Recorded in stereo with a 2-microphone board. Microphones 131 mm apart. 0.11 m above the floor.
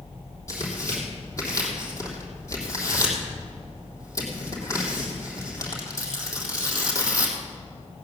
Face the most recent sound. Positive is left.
turn(degrees=25)  # may be behind; listen again after turning